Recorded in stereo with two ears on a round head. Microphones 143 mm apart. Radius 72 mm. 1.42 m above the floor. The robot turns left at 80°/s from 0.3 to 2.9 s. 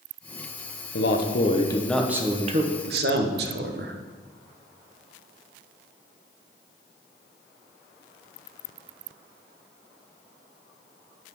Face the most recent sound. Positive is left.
turn(degrees=-70)